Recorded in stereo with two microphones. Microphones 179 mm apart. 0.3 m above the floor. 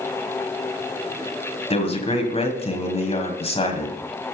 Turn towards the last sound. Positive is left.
turn(degrees=35)  # may be behind; listen again after turning